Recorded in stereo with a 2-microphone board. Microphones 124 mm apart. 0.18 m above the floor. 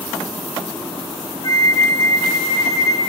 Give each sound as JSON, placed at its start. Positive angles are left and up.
{"t": 1.4, "sound": "a flute", "side_deg": 30, "distance_m": 2.5}